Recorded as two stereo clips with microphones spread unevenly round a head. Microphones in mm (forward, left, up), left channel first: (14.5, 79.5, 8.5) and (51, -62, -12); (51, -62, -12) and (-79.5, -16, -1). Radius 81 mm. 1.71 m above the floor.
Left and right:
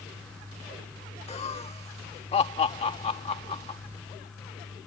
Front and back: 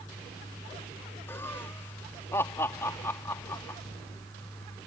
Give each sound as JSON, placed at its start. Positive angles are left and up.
{"t": 1.3, "sound": "laughter", "azimuth_deg": 60}